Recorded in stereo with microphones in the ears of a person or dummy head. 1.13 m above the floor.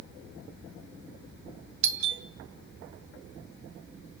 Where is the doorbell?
60° right (ahead or behind), 1.7 m.